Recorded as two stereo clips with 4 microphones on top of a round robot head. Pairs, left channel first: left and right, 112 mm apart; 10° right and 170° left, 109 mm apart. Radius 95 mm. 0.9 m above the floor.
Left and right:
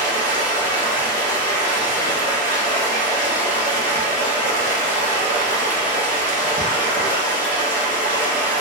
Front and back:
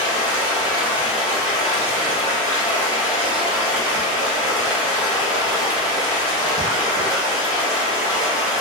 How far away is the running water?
About 1.4 m.